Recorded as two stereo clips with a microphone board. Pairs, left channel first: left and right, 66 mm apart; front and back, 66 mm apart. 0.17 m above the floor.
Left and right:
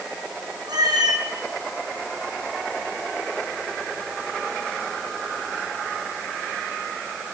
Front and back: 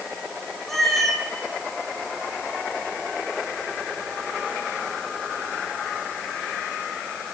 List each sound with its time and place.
0.7 s a cat meowing: 85° right, 1.9 m